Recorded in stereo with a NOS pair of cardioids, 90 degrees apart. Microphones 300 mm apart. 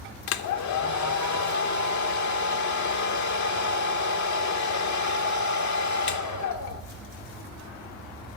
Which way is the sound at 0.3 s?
65° left.